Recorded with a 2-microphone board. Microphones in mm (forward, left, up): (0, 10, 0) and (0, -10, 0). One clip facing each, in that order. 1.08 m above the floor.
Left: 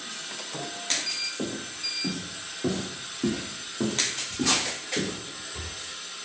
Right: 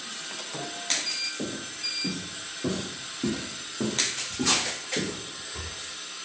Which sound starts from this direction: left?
Footsteps, at 1.4 s.